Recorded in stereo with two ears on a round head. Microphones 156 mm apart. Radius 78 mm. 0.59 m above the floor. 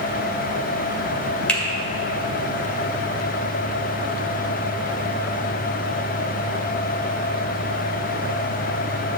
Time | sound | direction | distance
1.5 | a finger snap | 10° left (ahead or behind) | 1.9 m